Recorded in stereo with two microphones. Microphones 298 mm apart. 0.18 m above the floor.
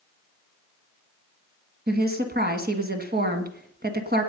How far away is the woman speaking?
About 1.8 m.